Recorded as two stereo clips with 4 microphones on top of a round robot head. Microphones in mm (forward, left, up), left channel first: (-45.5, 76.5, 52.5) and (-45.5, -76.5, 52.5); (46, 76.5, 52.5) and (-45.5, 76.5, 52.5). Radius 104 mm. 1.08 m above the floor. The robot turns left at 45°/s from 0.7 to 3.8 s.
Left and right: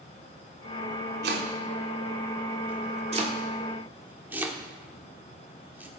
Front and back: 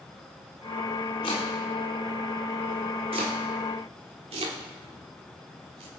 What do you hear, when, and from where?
1.2 s chopping: 55° right, 1.5 m; by 5.9 s 170° right, 1.5 m